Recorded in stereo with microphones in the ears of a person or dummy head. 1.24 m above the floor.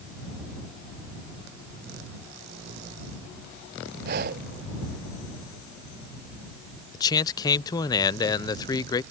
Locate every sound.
4.0 s breathing: 50° right (ahead or behind)
6.9 s a man speaking: 20° left (ahead or behind)